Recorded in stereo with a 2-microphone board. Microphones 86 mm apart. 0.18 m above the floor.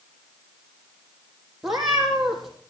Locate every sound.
1.6 s a cat meowing: 5° right (ahead or behind), 3 m